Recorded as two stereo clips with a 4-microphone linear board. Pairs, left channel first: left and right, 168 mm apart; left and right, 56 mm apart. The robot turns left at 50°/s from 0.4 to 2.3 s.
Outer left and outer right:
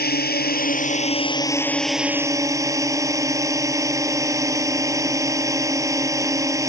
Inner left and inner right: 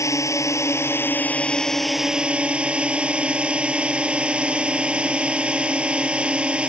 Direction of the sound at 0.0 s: 75° left.